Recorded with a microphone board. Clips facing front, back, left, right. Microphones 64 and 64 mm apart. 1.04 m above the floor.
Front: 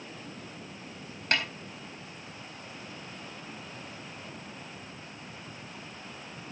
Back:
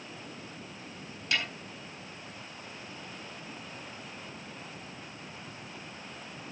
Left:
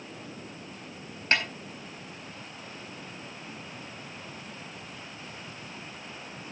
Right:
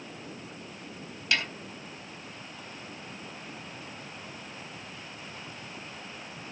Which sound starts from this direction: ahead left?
A snare drum, at 1.3 s.